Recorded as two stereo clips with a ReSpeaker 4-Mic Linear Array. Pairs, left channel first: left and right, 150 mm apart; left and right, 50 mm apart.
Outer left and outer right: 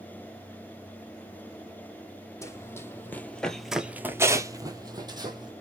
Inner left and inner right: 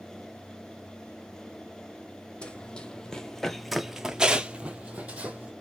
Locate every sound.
2.4 s running footsteps: 20° left (ahead or behind), 1.1 m; by 5.5 s 30° right (ahead or behind), 1.2 m